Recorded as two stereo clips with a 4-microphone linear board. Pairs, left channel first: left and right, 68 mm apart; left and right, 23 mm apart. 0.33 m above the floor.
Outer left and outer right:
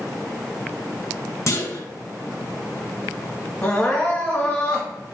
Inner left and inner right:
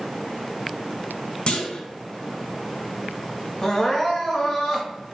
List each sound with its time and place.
1.5 s a clunk: 45° left (ahead or behind), 0.5 m
3.6 s crying: 20° left (ahead or behind), 1.1 m